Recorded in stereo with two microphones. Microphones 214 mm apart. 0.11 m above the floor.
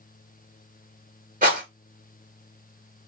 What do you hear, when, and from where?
1.4 s a rattle: 40° right (ahead or behind), 1.8 m